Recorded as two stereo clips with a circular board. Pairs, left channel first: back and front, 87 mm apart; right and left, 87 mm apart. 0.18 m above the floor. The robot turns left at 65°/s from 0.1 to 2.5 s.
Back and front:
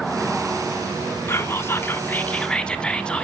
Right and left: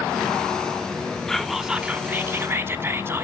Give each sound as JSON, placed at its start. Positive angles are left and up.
{"t": 1.3, "sound": "whispering", "azimuth_deg": -170, "distance_m": 1.1}